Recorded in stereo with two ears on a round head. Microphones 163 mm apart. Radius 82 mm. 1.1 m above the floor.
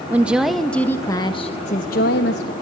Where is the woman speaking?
10° right (ahead or behind), 1.1 m; by 2.5 s 65° left (ahead or behind), 1.0 m.